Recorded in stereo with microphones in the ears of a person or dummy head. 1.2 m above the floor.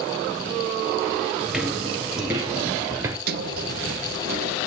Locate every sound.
1.5 s footsteps: 5° right (ahead or behind), 1.3 m; by 3.2 s 15° right (ahead or behind), 1.3 m
3.3 s a sliding door: 55° right (ahead or behind), 1.2 m